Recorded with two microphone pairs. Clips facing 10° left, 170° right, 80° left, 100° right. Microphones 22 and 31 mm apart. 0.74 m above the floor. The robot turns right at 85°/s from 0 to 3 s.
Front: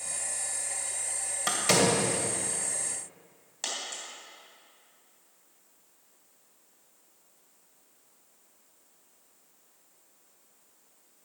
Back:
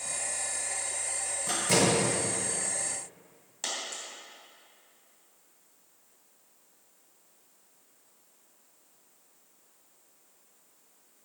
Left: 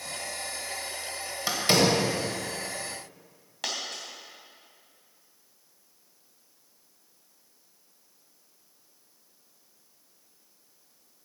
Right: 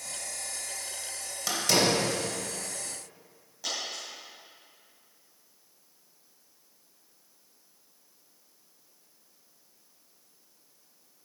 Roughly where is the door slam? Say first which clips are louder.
Front 1 dB, left 2 dB; ahead.